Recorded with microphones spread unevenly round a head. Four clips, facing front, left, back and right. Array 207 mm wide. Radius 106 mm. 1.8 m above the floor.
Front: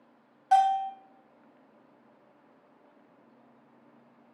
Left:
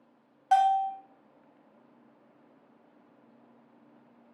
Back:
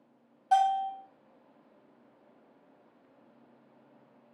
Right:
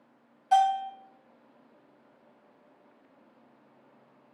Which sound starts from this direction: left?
A bell, at 0.5 s.